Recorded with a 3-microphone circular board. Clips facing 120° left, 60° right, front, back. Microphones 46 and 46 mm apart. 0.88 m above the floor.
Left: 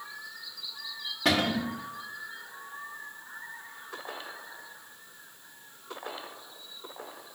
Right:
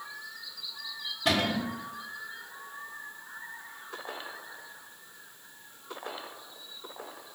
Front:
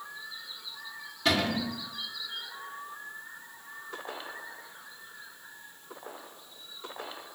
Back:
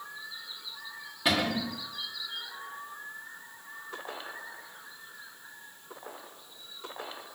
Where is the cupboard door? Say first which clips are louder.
Left 1 dB, front 1 dB; 105° left, 0.9 m.